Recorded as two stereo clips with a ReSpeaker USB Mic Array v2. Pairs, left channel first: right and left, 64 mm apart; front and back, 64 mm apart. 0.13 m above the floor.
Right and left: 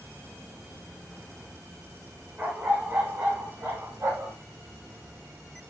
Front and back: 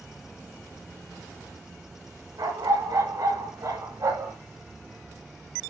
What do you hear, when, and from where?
2.4 s a dog barking: 155° left, 6.5 m; by 4.4 s 140° left, 8 m